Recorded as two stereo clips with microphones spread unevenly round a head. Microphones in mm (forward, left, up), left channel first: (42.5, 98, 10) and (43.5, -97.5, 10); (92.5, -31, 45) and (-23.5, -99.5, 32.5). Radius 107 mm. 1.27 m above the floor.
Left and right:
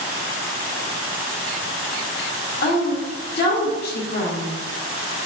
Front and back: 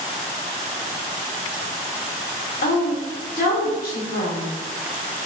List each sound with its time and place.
2.6 s a woman speaking: 55° left, 0.8 m